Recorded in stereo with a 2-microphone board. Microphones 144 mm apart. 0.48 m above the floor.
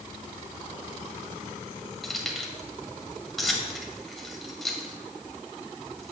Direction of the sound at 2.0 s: Centre (ahead or behind).